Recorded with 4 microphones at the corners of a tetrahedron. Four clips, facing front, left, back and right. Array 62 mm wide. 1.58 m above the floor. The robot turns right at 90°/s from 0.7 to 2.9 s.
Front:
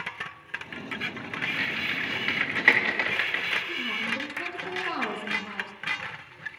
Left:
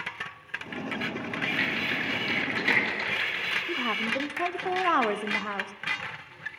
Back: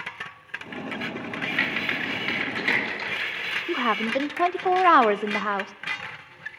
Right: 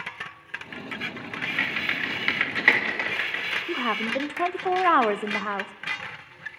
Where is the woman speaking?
160° right, 0.6 m.